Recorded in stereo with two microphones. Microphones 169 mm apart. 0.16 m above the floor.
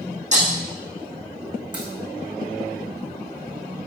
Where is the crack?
25° right (ahead or behind), 4.5 m.